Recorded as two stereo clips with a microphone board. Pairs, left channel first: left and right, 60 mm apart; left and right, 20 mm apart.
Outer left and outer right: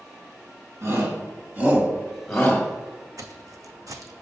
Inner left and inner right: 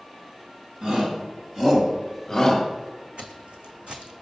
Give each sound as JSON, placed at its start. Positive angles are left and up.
{"t": 0.8, "sound": "a shout", "side_deg": -50, "distance_m": 2.0}
{"t": 3.2, "sound": "footsteps", "side_deg": -70, "distance_m": 0.5}